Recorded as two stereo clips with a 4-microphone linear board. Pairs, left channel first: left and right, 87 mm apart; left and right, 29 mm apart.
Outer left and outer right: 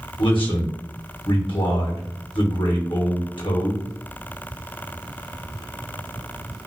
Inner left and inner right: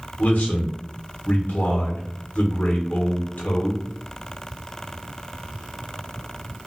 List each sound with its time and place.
0.2 s a man speaking: 70° left (ahead or behind), 1.1 m